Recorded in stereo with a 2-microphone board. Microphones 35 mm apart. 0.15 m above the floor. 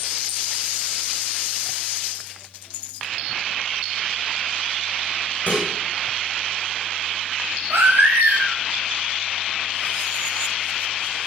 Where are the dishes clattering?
35° left (ahead or behind), 7.5 m.